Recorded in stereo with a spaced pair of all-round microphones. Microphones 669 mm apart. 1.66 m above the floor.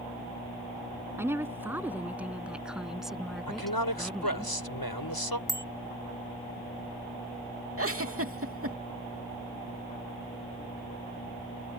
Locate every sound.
1.2 s a woman speaking: 5° right (ahead or behind); by 4.5 s centre (ahead or behind)
3.5 s a man speaking: 30° left (ahead or behind)
5.5 s a bicycle bell: 5° left (ahead or behind)
7.8 s a giggle: 20° right (ahead or behind)